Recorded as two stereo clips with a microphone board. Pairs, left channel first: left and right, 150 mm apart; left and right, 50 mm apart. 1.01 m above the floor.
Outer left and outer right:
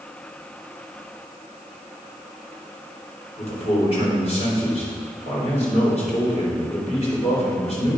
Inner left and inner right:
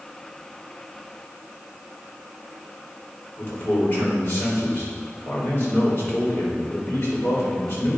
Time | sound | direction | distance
3.4 | a man speaking | 45° left (ahead or behind) | 3.5 m